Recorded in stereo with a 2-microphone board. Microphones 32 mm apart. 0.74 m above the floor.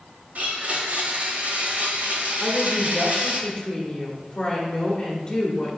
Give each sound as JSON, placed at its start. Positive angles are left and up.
{"t": 0.3, "sound": "a blender", "side_deg": -55, "distance_m": 1.3}
{"t": 2.4, "sound": "a woman speaking", "side_deg": 30, "distance_m": 1.7}